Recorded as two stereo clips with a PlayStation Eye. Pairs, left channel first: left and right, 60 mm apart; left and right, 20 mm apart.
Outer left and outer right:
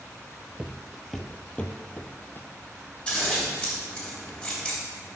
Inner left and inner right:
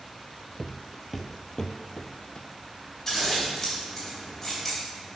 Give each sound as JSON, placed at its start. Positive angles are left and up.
{"t": 0.6, "sound": "footsteps", "side_deg": -20, "distance_m": 0.6}
{"t": 3.1, "sound": "scissors", "side_deg": 15, "distance_m": 3.0}